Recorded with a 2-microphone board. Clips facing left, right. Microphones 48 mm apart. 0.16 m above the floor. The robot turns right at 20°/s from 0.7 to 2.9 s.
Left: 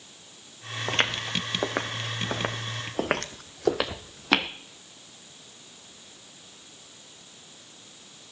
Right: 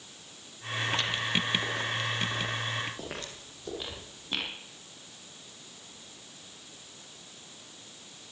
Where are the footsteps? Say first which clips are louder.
Left 4 dB; 50° left (ahead or behind), 2 m; by 4.5 s 85° left, 1.9 m.